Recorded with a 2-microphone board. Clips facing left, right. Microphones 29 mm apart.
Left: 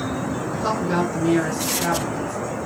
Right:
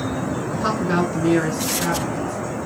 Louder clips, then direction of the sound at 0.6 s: Right 1 dB; 30° right (ahead or behind).